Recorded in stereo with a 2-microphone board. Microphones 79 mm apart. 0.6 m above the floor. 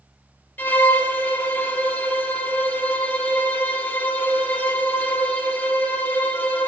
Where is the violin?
20° left (ahead or behind), 1.3 m.